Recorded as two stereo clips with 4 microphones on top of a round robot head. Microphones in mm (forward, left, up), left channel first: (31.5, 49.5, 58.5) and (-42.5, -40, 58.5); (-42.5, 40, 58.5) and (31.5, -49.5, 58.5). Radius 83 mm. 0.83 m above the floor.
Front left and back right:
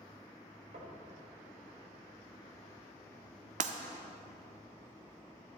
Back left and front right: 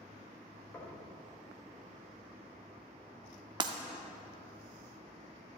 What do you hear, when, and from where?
0.7 s knocking: 160° right, 3 m
3.6 s breaking glass: 105° right, 0.7 m